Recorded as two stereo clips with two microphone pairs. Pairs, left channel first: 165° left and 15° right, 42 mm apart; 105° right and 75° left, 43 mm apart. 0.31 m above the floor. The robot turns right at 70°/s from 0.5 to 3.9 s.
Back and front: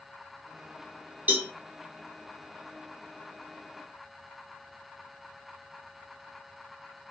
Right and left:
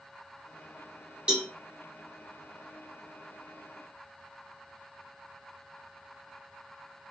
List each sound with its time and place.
1.3 s a cowbell: 15° left, 1.1 m; by 1.5 s 30° left, 1.1 m